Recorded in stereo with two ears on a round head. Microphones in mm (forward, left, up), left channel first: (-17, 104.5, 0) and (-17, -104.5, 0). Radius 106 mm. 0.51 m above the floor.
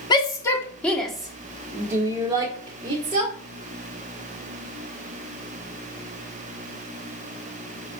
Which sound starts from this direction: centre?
A shout, at 0.1 s.